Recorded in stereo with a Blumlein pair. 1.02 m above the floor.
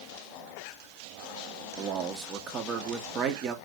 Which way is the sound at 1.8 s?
30° right.